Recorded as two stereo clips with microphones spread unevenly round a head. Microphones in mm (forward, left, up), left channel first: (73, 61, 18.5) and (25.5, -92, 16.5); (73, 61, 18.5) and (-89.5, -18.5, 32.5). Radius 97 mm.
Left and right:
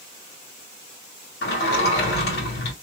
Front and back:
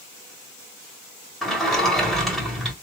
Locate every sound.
1.4 s a sliding door: 115° left, 1.8 m